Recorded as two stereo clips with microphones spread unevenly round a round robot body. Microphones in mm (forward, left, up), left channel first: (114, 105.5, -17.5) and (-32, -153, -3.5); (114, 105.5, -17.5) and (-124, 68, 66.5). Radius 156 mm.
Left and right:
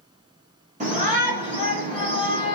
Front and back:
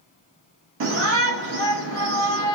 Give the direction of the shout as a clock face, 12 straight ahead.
6 o'clock.